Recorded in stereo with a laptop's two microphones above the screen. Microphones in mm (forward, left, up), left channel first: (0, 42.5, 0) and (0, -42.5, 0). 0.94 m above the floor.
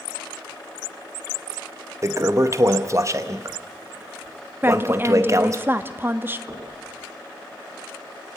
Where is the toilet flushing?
35° right (ahead or behind), 0.9 m.